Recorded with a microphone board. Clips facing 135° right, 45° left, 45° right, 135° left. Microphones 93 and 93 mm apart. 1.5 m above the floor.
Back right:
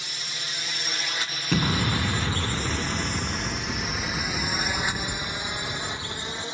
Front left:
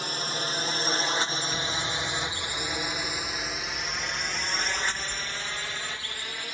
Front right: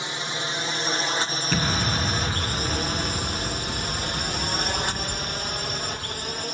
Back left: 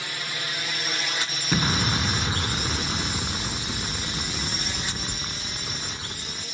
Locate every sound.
0.0 s a drone: 15° left; by 6.5 s 70° right
1.5 s an explosion: 150° right